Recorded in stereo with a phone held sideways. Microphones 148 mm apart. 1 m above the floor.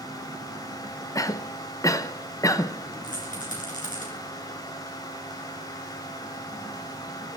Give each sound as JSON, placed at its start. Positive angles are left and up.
{"t": 0.0, "sound": "a fan", "side_deg": 25, "distance_m": 1.4}
{"t": 1.1, "sound": "a cough", "side_deg": 25, "distance_m": 0.6}
{"t": 3.0, "sound": "a rattle", "side_deg": 65, "distance_m": 3.0}